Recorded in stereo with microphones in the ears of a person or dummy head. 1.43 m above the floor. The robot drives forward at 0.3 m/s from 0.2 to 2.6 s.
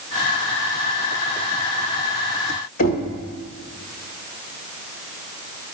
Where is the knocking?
45° left (ahead or behind), 1.1 m.